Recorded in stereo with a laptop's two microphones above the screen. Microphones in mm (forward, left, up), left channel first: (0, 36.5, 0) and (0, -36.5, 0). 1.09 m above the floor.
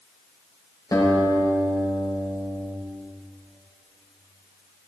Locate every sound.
0.9 s a guitar: 50° left (ahead or behind), 4 m